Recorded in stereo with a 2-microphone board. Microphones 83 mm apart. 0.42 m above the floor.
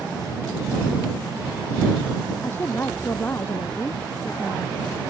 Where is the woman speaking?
25° left (ahead or behind).